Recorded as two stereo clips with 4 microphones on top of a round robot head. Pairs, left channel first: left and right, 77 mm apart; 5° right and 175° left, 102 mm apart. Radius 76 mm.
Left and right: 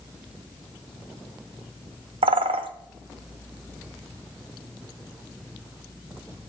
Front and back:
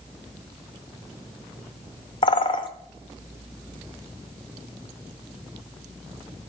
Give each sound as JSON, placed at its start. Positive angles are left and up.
{"t": 2.2, "sound": "a bird", "azimuth_deg": -60, "distance_m": 0.7}